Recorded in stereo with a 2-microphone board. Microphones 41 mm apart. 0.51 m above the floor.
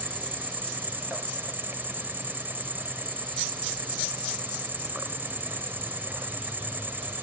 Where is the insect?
55° right (ahead or behind), 0.7 m.